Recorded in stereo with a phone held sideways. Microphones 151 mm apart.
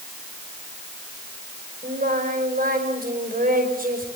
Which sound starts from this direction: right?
Singing, at 1.8 s.